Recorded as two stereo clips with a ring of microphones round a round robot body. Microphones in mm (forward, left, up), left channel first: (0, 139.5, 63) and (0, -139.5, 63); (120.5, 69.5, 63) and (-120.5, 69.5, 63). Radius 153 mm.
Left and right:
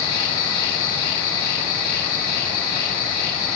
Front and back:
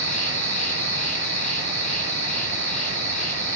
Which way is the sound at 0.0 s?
55° left.